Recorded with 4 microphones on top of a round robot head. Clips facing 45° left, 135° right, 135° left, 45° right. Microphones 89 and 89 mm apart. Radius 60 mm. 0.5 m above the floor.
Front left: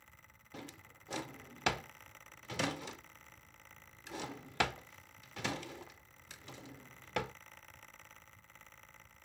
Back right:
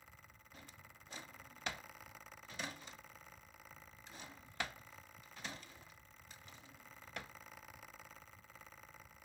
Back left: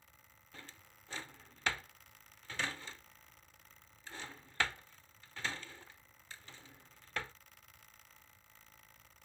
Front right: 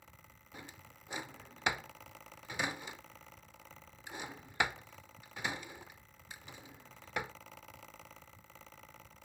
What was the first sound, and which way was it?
A drawer, 35° left.